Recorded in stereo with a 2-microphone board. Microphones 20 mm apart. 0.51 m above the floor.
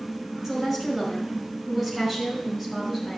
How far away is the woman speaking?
About 4.5 m.